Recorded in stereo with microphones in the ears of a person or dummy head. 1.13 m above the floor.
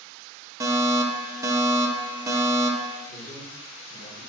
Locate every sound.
0.6 s a fire alarm: 20° right (ahead or behind), 1.0 m
3.1 s a man speaking: 45° left (ahead or behind), 4.5 m